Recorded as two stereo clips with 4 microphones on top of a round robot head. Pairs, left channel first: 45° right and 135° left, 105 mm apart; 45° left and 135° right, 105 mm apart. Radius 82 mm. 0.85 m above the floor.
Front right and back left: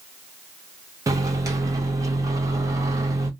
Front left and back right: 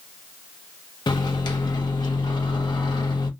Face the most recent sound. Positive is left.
turn(degrees=80)